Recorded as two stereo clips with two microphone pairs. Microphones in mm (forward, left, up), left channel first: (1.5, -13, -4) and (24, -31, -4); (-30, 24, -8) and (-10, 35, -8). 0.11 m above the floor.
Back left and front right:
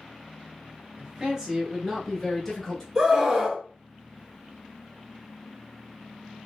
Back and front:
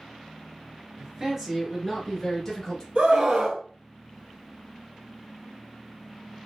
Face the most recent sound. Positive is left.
turn(degrees=30)